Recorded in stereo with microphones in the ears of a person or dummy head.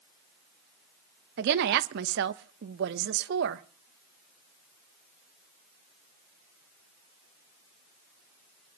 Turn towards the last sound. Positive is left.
turn(degrees=-55)  # may be behind; listen again after turning